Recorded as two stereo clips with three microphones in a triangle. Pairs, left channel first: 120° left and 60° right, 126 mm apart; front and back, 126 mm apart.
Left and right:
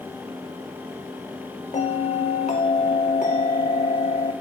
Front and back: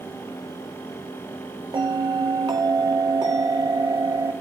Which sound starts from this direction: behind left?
A bell, at 1.7 s.